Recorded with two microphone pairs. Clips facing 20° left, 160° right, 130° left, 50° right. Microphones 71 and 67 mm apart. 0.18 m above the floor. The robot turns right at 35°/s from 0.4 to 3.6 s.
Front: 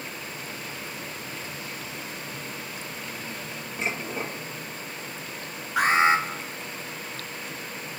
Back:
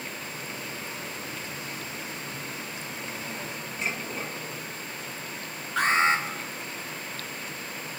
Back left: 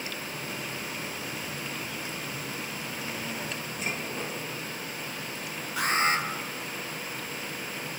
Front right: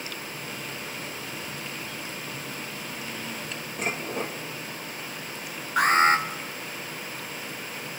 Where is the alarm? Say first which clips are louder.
Front 3 dB, front right 6 dB; 55° right, 3 m.